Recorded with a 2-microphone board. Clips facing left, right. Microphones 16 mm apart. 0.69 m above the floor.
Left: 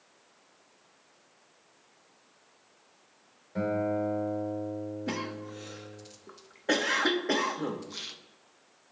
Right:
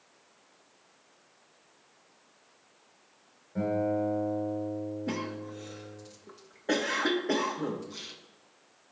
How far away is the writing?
No writing in this recording.